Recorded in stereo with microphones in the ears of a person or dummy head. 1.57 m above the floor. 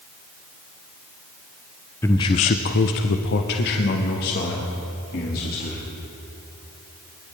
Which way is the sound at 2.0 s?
10° left (ahead or behind).